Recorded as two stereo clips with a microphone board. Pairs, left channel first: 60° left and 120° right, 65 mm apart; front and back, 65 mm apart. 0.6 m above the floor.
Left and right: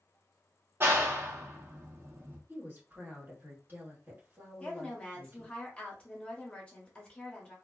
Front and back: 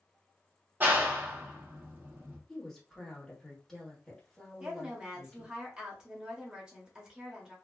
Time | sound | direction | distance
0.8 | a clap | 140° right | 0.6 m
2.5 | a woman speaking | 80° right | 1.3 m
4.6 | a woman speaking | 115° left | 0.8 m